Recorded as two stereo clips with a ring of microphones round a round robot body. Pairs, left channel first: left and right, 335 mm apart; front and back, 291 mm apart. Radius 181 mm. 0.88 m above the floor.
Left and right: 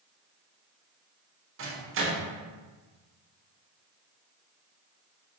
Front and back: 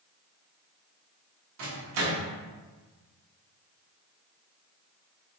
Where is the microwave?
145° right, 0.9 m.